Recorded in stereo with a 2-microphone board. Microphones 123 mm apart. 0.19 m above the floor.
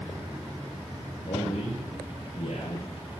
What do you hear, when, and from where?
1.3 s a man speaking: 70° left (ahead or behind), 4 m; by 2.9 s 75° left (ahead or behind), 5 m